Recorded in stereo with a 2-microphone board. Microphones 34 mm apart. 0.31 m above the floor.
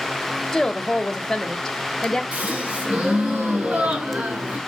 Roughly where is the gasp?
Right.